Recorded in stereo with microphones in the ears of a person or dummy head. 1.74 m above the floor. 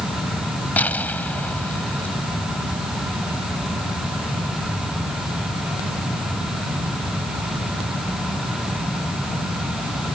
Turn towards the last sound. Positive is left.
turn(degrees=10)  # may be behind; listen again after turning